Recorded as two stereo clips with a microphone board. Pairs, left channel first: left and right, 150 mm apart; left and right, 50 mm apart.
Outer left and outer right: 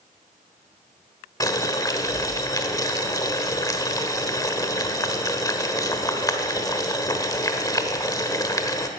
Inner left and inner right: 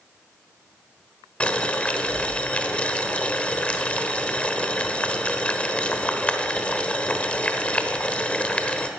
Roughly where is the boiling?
Left.